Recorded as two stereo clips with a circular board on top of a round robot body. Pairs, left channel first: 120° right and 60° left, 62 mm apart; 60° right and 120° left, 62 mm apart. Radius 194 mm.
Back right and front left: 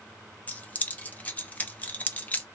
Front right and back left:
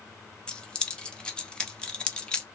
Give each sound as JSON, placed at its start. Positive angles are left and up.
{"t": 0.5, "sound": "keys jangling", "azimuth_deg": -115, "distance_m": 0.9}